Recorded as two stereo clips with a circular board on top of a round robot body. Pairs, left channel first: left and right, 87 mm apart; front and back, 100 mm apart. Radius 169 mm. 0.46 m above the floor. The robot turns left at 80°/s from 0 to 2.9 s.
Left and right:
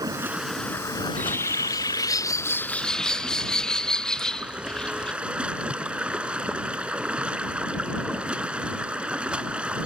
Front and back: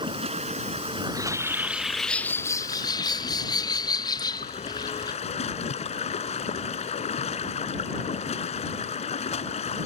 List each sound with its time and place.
0.0 s running water: 140° right; by 9.9 s 10° right
1.0 s a bird: 165° left; by 5.1 s 15° left